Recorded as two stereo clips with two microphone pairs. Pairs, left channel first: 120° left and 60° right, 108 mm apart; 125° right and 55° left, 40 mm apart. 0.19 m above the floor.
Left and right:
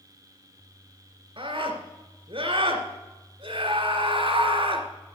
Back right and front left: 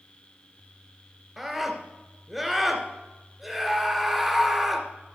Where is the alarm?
I don't hear an alarm.